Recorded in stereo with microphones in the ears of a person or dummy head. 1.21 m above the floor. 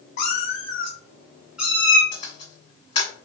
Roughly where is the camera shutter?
Left.